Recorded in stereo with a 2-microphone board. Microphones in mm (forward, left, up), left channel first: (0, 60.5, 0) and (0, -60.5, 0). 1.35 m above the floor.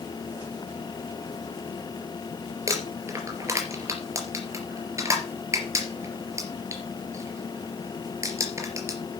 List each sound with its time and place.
2.7 s crumpling: 25° right (ahead or behind), 3.5 m